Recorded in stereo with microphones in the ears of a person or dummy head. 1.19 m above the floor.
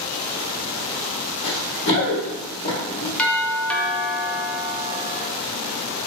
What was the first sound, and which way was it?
Running footsteps, 40° left (ahead or behind).